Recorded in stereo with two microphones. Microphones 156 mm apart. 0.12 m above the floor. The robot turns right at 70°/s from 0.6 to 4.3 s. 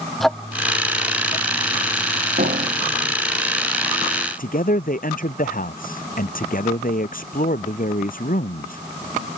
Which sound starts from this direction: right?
A piano, at 2.4 s.